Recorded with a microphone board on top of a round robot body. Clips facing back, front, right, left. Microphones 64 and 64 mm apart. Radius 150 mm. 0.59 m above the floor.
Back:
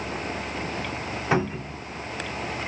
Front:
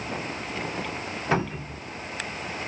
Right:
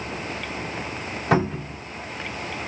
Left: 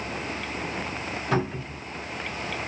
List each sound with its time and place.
1.3 s a cupboard door: 105° right, 2.5 m